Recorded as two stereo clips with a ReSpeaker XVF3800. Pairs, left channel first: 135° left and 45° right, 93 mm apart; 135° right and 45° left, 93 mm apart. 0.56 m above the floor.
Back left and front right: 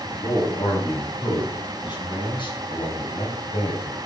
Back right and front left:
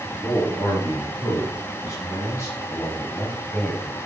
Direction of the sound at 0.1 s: 175° left.